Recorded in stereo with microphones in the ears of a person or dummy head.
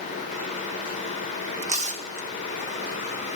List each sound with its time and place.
1.6 s tearing paper: 40° right (ahead or behind), 1.3 m